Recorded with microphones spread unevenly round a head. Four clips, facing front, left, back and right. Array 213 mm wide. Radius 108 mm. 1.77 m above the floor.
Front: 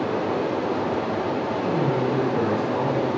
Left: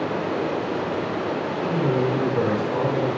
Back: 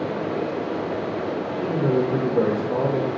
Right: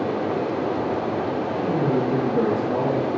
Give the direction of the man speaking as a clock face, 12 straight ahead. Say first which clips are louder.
Even, back 3 dB; 5 o'clock.